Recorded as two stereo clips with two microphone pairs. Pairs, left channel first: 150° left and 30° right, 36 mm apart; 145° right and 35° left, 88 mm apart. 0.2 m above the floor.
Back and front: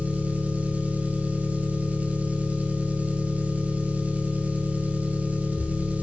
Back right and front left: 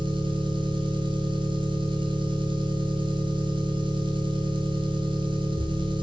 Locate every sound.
0.0 s an engine running: 20° left, 1.1 m